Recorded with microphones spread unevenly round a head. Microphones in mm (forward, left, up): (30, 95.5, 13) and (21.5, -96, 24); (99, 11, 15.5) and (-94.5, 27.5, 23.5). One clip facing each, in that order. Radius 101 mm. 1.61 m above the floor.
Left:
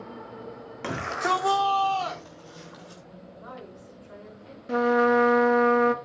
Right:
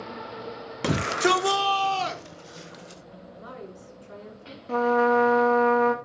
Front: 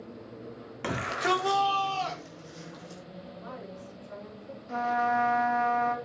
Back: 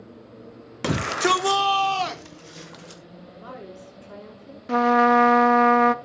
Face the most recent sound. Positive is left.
turn(degrees=165)